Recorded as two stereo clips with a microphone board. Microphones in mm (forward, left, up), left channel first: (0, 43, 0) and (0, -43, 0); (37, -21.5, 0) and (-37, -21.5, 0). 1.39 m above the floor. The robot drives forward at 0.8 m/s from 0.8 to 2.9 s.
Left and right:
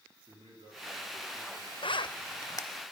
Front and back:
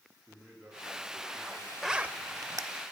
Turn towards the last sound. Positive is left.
turn(degrees=150)